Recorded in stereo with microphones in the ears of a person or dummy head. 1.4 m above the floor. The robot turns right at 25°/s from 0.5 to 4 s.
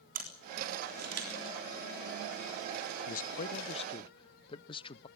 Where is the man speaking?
50° left (ahead or behind), 0.5 m; by 5.1 s 30° left (ahead or behind), 0.5 m.